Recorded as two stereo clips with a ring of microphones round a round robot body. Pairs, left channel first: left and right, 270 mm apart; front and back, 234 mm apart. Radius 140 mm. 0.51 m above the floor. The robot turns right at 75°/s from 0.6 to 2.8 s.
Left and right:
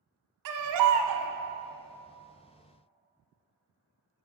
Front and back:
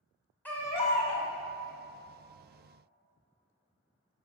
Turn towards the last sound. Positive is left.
turn(degrees=80)